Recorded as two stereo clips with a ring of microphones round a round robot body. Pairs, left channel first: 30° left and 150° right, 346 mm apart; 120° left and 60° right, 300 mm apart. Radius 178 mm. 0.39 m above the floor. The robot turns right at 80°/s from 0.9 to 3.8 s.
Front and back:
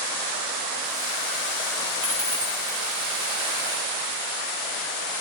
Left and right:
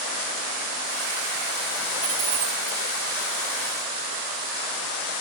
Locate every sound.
2.0 s a dropped coin: 100° right, 4 m; by 2.8 s 40° right, 4 m